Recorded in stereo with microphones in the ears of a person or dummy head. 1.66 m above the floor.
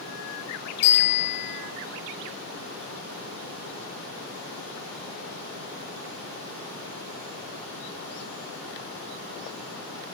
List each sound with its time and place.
0.8 s a bicycle bell: 40° left (ahead or behind), 8 m